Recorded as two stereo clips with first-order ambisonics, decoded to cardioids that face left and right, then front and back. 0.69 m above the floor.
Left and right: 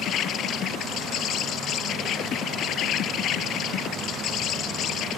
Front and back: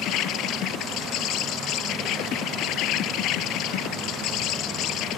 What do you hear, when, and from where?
0.0 s an insect: 40° left